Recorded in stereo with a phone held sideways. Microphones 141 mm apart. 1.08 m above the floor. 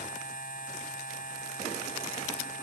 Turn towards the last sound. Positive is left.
turn(degrees=85)